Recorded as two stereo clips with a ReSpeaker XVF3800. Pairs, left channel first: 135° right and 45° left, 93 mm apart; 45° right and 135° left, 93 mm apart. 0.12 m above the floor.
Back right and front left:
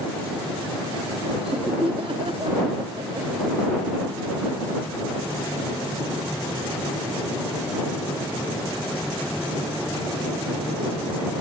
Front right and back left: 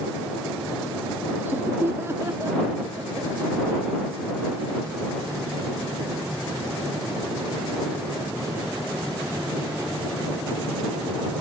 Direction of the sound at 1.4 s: 65° left.